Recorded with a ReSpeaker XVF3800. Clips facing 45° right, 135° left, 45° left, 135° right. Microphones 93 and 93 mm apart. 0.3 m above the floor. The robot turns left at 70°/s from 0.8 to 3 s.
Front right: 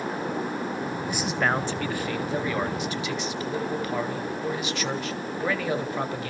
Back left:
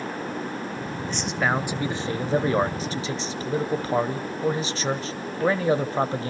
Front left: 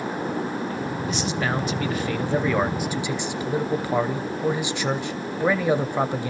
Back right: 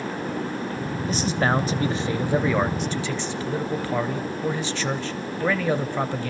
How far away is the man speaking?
About 1.1 m.